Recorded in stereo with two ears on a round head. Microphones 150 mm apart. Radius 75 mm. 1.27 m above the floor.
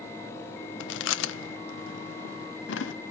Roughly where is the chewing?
Left.